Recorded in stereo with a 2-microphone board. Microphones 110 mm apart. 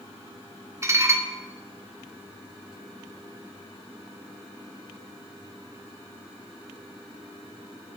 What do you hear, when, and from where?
0.8 s dishes clattering: 25° right (ahead or behind), 0.6 m